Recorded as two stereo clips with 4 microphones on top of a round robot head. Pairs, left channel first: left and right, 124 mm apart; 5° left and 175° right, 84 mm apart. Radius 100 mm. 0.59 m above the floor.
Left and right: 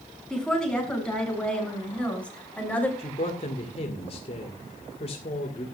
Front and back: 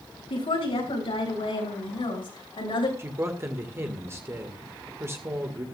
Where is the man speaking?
130° left, 2.0 m.